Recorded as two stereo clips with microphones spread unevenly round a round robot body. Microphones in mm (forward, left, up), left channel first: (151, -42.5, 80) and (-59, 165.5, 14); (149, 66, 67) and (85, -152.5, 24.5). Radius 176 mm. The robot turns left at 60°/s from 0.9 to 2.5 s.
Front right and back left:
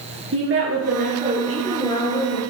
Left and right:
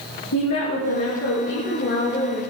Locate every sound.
0.3 s a woman speaking: 95° left, 5 m; by 2.4 s 5° left, 5 m